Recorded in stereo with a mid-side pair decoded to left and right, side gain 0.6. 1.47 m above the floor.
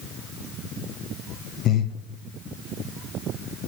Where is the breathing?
55° left, 1.0 m.